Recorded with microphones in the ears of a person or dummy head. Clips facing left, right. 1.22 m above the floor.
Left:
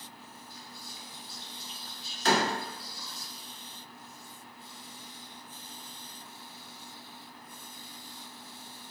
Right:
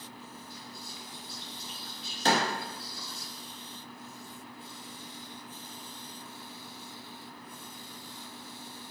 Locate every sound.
0.5 s whispering: 55° right (ahead or behind), 0.8 m
2.2 s a door slam: 30° right (ahead or behind), 0.7 m